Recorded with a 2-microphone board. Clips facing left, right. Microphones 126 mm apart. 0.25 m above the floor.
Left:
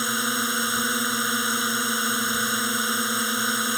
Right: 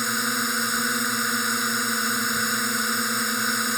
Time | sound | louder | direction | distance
0.0 | a drone | even | 5° left (ahead or behind) | ?